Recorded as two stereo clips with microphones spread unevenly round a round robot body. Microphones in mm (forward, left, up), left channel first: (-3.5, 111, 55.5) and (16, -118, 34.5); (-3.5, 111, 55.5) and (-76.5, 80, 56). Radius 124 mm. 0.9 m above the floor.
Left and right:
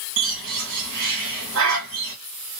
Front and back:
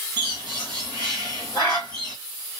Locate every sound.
0.2 s a bird: 55° right, 1.7 m